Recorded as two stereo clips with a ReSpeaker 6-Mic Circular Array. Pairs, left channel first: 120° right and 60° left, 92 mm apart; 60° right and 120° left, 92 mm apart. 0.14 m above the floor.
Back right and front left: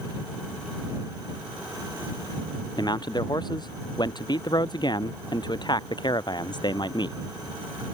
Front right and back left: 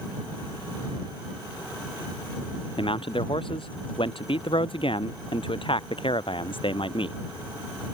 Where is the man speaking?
80° right; by 7.2 s 85° right.